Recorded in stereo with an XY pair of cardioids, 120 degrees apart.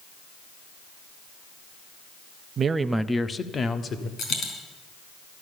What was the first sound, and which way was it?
A man speaking, 45° right.